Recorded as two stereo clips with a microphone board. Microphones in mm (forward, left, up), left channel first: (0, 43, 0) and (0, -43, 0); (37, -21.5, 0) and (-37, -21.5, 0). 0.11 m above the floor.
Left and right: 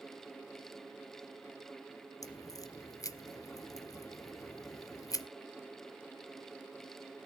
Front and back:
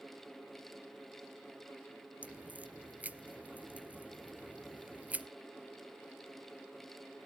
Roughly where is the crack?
Behind left.